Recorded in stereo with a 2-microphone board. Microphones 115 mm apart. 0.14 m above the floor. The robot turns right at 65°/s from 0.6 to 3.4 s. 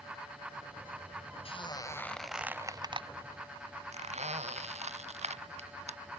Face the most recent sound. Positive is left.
turn(degrees=-75)  # may be behind; listen again after turning